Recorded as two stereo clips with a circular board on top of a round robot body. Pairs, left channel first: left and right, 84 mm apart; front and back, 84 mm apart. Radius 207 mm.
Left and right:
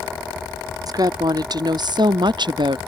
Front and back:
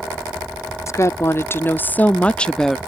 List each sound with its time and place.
0.9 s a woman speaking: 50° right; by 2.8 s 85° right